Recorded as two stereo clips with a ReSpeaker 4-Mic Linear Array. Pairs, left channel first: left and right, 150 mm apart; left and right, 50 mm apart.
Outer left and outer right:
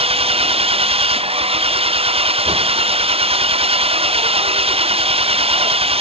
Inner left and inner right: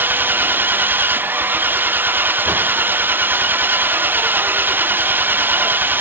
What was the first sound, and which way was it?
An engine running, 40° right (ahead or behind).